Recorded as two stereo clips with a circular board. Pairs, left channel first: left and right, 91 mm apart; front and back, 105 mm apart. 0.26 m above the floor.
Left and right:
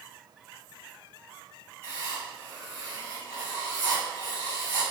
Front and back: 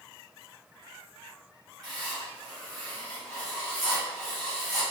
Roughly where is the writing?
Right.